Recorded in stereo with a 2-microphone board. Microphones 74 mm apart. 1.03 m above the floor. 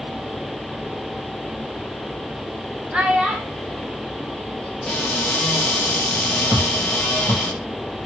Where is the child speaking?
15° right (ahead or behind), 1.1 m; by 5.2 s 10° left (ahead or behind), 2 m.